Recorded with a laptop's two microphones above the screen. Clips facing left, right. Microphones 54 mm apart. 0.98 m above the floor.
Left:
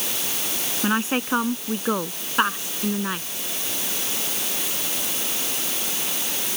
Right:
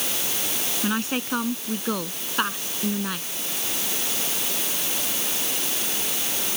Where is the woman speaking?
20° left (ahead or behind); by 3.3 s 15° left (ahead or behind).